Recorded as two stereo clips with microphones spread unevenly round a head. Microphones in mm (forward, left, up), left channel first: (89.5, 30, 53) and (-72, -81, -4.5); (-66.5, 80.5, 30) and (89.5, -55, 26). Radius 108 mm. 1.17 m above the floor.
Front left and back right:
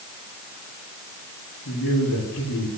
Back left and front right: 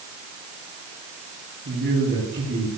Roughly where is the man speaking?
Ahead.